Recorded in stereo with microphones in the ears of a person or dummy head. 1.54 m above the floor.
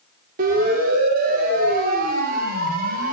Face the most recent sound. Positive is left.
turn(degrees=-50)  # may be behind; listen again after turning